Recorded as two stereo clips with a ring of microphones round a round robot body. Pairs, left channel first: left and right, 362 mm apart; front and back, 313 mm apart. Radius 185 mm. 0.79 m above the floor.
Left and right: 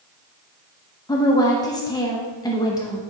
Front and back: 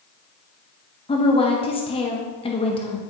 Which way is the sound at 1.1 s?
30° left.